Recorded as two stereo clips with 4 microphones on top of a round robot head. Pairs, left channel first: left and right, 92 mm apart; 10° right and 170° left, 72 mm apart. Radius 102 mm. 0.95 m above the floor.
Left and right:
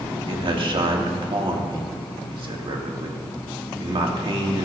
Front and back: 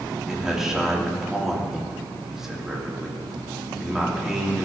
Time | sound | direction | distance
0.3 | a man speaking | 105° right | 1.9 m